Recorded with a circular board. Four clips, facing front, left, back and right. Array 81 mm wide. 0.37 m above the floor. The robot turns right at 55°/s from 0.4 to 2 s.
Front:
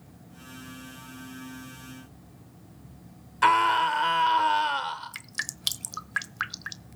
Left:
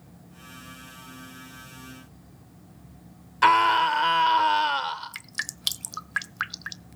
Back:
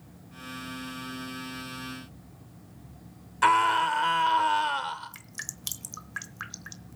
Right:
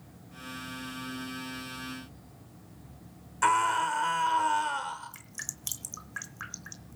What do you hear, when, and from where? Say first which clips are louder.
3.4 s a scream: left 6 dB, front 1 dB; 80° left, 0.9 m
5.1 s dripping: left 10 dB, front 7 dB; 55° left, 0.8 m